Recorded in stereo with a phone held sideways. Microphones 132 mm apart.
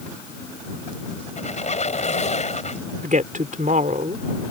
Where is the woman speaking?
70° right (ahead or behind).